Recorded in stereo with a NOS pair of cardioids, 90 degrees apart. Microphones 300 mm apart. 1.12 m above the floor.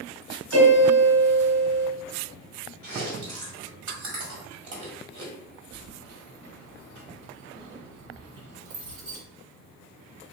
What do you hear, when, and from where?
0.5 s a piano: 60° right, 1.8 m
2.8 s chewing: 65° right, 1.6 m
5.7 s keys jangling: 65° right, 1.6 m